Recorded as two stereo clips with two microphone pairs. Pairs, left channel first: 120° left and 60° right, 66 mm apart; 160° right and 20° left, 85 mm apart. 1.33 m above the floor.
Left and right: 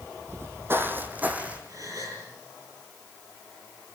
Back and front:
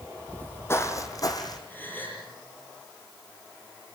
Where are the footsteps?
90° right, 2 m; by 1.6 s 125° right, 3.5 m.